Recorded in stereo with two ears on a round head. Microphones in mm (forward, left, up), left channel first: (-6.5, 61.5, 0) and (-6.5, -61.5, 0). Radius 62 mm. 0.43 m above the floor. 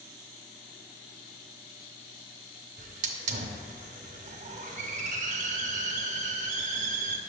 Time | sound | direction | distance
2.8 | a hiss | 55° right (ahead or behind) | 0.7 m